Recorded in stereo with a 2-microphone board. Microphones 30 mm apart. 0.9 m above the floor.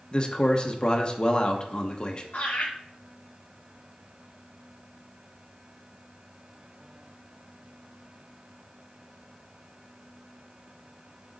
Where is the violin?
No violin in this recording.